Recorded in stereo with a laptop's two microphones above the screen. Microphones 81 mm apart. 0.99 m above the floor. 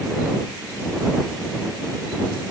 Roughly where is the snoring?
No snoring in this recording.